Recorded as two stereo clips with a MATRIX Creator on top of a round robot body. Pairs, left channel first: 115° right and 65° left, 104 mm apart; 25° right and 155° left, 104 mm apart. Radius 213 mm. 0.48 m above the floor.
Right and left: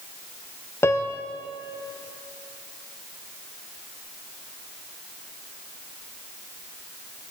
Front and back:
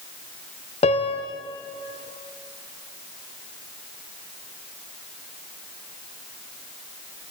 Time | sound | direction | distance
0.8 | a piano | 45° right | 0.5 m